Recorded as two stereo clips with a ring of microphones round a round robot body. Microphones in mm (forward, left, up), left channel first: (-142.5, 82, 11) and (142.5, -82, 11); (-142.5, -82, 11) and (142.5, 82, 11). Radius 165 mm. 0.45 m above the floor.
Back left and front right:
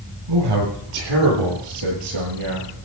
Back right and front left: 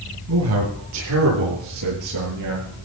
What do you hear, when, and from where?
0.3 s a man speaking: 15° right, 8.5 m; by 2.7 s straight ahead, 8.5 m